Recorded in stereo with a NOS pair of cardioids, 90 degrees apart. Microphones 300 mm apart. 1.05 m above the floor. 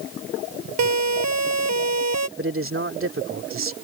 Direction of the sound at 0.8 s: 65° right.